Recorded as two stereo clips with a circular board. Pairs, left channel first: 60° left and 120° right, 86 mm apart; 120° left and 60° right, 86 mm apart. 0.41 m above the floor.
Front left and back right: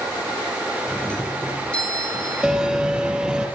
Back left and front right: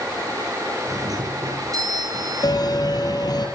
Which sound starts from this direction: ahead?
A doorbell, at 0.9 s.